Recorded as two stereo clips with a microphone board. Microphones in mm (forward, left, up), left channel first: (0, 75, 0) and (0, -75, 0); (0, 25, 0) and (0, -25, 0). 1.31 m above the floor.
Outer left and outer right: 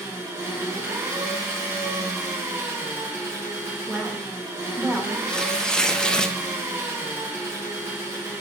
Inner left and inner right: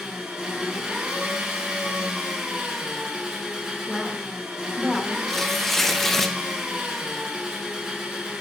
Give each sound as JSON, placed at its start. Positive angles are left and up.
{"t": 0.0, "sound": "an engine running", "side_deg": -15, "distance_m": 2.5}
{"t": 3.9, "sound": "a woman speaking", "side_deg": -5, "distance_m": 1.0}
{"t": 5.3, "sound": "tearing paper", "side_deg": 5, "distance_m": 0.5}